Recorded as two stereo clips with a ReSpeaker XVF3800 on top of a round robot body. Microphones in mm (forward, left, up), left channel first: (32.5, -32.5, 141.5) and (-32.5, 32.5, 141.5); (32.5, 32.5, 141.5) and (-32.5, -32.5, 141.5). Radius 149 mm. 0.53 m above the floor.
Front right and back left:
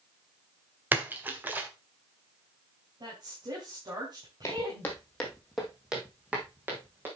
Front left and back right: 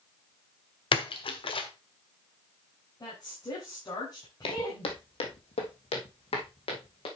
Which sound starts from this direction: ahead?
Footsteps, at 4.4 s.